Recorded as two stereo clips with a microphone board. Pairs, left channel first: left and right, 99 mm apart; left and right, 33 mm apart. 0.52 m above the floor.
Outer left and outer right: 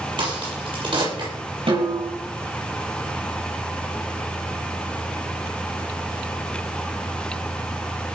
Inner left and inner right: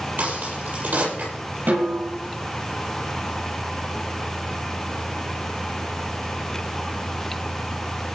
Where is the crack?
50° right (ahead or behind), 8 m.